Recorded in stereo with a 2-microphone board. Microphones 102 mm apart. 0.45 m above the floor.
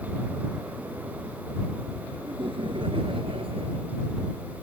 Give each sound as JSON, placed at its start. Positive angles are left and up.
{"t": 2.2, "sound": "laughter", "side_deg": -55}